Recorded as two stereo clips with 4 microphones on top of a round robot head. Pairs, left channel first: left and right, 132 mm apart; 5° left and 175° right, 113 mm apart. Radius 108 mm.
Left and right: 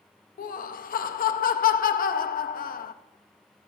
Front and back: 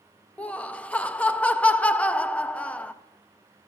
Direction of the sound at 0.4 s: 85° left.